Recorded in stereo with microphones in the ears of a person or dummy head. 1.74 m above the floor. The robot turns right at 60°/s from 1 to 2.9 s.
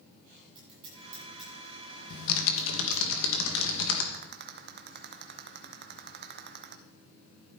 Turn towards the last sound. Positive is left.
turn(degrees=-55)  # may be behind; listen again after turning